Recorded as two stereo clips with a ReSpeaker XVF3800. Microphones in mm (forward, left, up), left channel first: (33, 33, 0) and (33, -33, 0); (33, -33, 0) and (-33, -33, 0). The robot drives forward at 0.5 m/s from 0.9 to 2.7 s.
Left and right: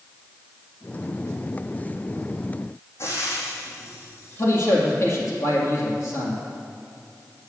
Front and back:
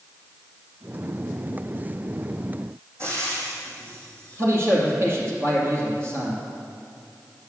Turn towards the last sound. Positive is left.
turn(degrees=135)